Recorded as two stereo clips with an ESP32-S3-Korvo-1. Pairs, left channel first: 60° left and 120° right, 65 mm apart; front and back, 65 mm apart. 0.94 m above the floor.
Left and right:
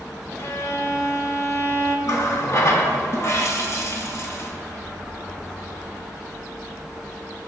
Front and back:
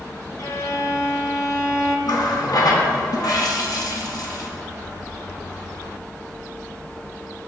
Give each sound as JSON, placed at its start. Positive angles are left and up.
{"t": 0.4, "sound": "a violin", "azimuth_deg": 25, "distance_m": 0.9}
{"t": 2.1, "sound": "a running tap", "azimuth_deg": 20, "distance_m": 0.9}